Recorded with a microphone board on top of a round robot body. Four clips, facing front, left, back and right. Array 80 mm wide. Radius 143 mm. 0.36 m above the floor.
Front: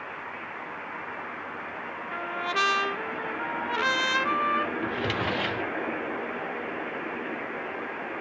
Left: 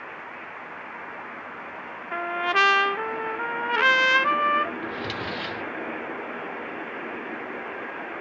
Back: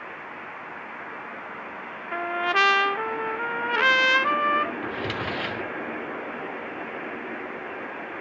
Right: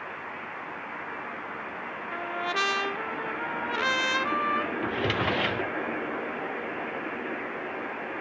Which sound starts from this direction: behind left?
A trumpet, at 2.1 s.